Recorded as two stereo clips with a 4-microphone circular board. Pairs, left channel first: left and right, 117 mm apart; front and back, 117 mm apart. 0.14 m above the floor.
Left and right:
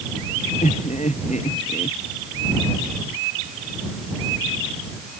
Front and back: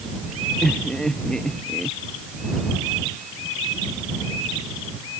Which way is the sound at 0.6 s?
85° left.